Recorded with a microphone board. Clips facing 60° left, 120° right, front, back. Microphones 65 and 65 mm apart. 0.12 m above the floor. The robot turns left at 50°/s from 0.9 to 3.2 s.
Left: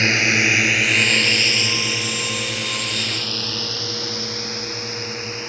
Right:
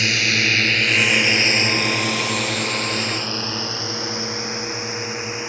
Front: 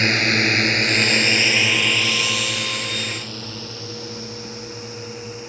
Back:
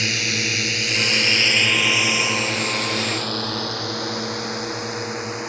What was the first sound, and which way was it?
A drone, 15° left.